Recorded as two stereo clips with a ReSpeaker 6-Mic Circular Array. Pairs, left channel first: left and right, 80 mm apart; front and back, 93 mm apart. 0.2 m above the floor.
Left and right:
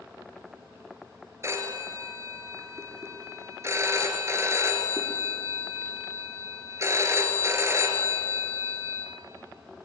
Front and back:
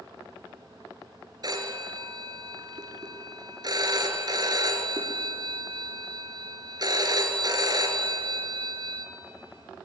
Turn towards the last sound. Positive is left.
turn(degrees=-140)